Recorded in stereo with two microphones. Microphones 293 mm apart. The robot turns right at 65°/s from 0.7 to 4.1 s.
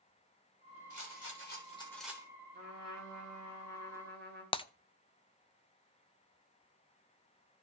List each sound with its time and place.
0.9 s a rattle: 105° left, 4 m; by 2.3 s 165° right, 4 m
2.5 s a trumpet: 135° right, 8 m; by 4.4 s 35° right, 8 m
4.5 s breaking glass: 20° left (ahead or behind), 0.5 m